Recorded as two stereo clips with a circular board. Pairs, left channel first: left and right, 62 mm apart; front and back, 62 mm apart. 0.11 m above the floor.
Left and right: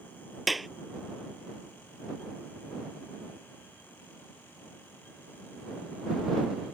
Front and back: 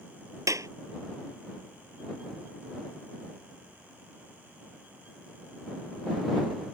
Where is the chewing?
I don't hear chewing.